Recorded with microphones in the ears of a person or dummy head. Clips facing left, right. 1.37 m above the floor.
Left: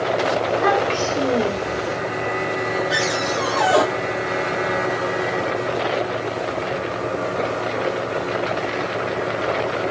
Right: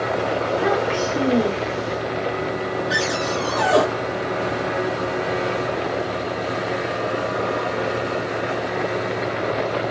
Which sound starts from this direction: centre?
A child speaking, at 0.4 s.